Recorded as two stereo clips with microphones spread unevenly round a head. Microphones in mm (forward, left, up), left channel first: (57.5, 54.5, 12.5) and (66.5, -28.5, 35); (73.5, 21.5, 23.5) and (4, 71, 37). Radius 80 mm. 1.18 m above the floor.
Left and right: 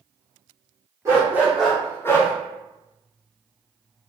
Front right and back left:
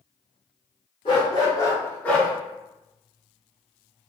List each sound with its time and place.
1.1 s a dog barking: 80° right, 1.0 m; by 2.3 s 65° left, 0.8 m